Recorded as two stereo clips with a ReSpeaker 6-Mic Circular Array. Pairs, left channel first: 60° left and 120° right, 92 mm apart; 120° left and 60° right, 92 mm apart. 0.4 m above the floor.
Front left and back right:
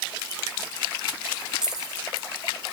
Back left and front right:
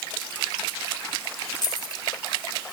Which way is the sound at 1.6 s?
155° left.